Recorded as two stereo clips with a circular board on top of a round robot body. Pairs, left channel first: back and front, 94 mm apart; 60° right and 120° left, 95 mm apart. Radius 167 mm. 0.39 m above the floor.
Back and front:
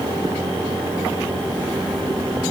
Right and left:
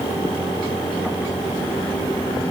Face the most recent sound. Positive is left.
No sound to turn to.